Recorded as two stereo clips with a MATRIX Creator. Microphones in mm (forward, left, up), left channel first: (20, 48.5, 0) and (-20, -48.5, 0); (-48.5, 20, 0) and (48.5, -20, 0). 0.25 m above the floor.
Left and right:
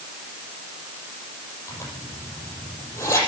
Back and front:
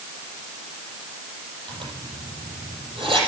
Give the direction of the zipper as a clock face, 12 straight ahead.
12 o'clock.